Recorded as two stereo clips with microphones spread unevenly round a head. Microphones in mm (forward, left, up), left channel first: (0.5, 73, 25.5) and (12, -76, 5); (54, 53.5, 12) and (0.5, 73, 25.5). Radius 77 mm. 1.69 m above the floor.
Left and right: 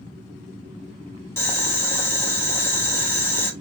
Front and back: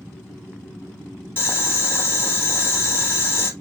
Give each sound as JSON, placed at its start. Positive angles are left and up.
{"t": 1.4, "sound": "boiling", "azimuth_deg": 30, "distance_m": 1.6}